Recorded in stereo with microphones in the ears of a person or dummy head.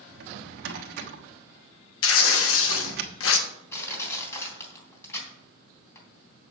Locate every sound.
0.1 s a drawer: 60° right (ahead or behind), 1.3 m
2.0 s tearing paper: 75° left (ahead or behind), 1.5 m
3.7 s crushing: 15° left (ahead or behind), 3 m